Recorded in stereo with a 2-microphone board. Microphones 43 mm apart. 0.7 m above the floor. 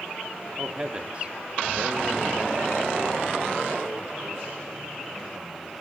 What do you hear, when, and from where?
0.6 s a man speaking: 15° right (ahead or behind), 1.1 m; by 5.7 s 50° right (ahead or behind), 2.5 m